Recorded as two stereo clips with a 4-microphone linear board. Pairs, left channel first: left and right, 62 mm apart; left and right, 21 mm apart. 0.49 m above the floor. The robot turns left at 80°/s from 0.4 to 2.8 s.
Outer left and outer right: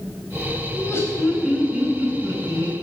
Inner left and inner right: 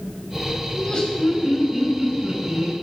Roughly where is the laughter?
Ahead left.